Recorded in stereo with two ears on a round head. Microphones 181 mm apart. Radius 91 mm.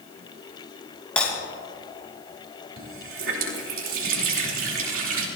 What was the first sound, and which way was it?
Breaking glass, 5° left (ahead or behind).